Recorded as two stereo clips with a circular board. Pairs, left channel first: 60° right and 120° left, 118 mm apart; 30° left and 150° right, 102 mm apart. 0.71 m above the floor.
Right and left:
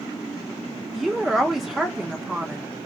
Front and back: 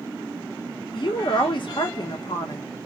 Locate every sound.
0.9 s a woman speaking: 30° left, 0.7 m